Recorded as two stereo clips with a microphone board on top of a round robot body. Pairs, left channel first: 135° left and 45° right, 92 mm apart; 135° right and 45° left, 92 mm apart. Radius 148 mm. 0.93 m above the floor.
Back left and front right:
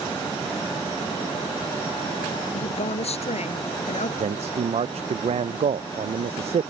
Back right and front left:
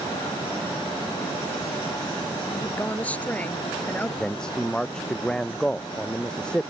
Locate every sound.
2.5 s a woman speaking: 150° left
4.2 s a man speaking: 55° right